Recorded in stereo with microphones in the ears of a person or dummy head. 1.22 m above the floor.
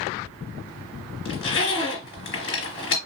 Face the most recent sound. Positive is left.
turn(degrees=50)  # may be behind; listen again after turning